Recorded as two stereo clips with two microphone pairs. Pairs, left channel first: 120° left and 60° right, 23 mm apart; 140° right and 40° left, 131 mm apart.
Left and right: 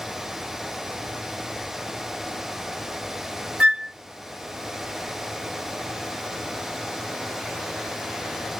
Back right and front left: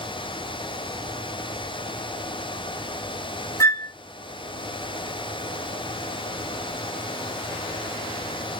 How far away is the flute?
About 0.9 m.